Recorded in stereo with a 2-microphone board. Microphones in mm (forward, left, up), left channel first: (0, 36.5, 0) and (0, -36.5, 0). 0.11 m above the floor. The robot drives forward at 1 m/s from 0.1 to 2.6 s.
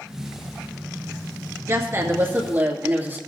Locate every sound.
1.7 s a woman speaking: 35° right (ahead or behind), 1.4 m; by 3.2 s 25° right (ahead or behind), 1.8 m